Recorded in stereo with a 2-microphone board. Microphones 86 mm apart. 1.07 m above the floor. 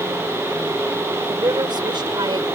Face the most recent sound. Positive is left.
turn(degrees=-60)  # may be behind; listen again after turning